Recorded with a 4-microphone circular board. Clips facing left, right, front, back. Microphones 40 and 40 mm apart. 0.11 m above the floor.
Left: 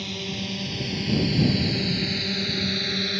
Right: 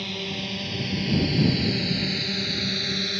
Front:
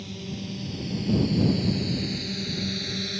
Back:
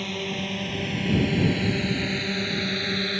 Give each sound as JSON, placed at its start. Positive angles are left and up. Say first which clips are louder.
{"t": 0.0, "sound": "a drone", "louder": "right 1 dB, back 7 dB", "azimuth_deg": -170}